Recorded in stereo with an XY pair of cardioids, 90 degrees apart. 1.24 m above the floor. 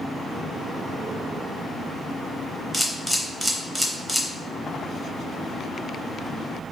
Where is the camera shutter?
10° right, 0.7 m.